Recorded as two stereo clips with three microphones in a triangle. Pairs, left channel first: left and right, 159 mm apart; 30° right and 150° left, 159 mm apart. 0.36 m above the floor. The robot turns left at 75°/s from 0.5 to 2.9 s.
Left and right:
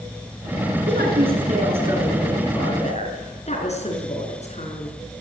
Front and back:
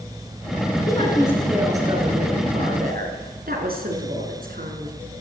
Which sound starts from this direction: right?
A woman speaking, at 0.9 s.